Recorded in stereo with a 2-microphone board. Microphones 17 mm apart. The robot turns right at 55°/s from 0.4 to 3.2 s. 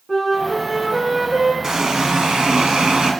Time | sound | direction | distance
0.1 | a flute | 165° left | 1.9 m
1.6 | a running tap | 150° right | 1.3 m